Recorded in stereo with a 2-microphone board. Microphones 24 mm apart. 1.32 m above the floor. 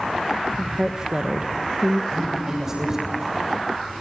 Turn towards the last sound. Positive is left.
turn(degrees=-25)  # may be behind; listen again after turning